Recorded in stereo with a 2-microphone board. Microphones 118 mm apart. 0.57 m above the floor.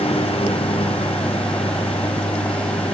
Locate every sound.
0.0 s a lawn mower: 55° left (ahead or behind)